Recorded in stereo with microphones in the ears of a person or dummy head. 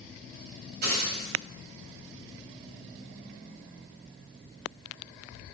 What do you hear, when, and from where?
0.8 s a dropped coin: 60° right (ahead or behind), 1.5 m